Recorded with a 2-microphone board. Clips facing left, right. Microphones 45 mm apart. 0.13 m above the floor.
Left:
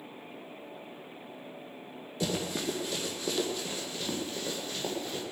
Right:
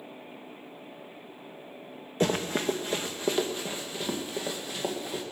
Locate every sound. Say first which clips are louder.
2.2 s running footsteps: right 5 dB; 45° right (ahead or behind), 1.4 m; by 5.2 s 15° right (ahead or behind), 3 m